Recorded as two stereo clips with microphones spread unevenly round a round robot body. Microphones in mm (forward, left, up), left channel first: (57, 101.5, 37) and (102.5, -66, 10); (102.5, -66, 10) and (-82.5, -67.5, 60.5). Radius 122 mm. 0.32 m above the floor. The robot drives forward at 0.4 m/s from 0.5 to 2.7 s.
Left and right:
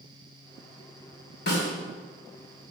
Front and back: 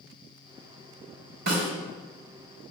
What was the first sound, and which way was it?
A snare drum, 135° left.